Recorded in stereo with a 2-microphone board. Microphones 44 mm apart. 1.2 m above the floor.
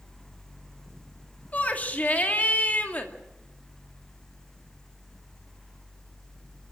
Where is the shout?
35° left (ahead or behind), 2.5 m.